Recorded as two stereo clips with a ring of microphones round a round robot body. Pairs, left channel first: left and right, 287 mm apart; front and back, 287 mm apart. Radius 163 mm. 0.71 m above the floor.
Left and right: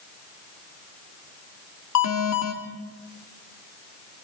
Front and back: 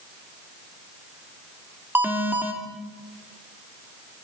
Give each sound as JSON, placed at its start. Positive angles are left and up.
{"t": 1.9, "sound": "an alarm", "azimuth_deg": 100, "distance_m": 3.0}